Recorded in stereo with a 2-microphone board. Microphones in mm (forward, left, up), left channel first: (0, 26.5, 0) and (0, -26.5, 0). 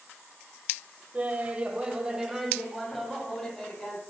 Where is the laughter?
30° right (ahead or behind), 1.0 m; by 4.0 s 10° left (ahead or behind), 1.9 m.